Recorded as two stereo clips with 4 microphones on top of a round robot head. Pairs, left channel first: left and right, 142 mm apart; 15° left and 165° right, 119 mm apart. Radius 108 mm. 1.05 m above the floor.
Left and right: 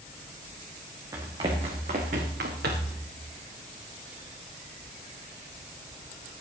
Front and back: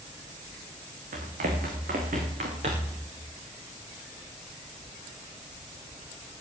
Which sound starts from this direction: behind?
Running footsteps, at 1.1 s.